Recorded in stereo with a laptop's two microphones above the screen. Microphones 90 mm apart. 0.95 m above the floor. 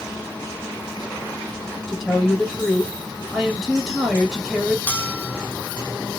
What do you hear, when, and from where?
1.9 s a woman speaking: centre (ahead or behind), 1.3 m
4.9 s a bell: 20° left (ahead or behind), 0.7 m